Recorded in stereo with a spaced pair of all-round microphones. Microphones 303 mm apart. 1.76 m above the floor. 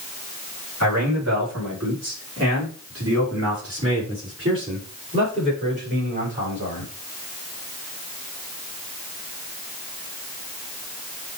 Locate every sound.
0.8 s a man speaking: 60° right (ahead or behind), 4.5 m; by 6.9 s 35° right (ahead or behind), 7 m